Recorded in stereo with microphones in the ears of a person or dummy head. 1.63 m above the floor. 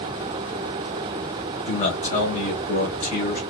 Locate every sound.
1.7 s a man speaking: 40° left (ahead or behind), 1.4 m